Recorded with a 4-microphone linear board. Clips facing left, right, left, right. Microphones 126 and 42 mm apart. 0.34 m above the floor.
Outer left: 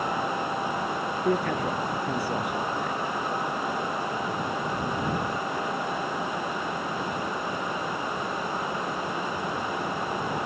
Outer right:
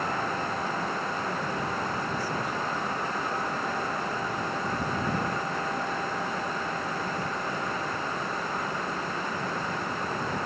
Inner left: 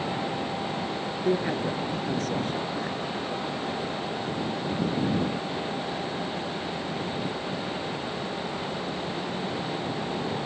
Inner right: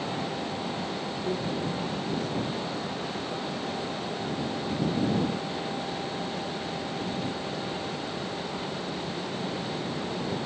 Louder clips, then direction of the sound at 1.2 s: Outer left 6 dB, inner left 6 dB; 70° left (ahead or behind).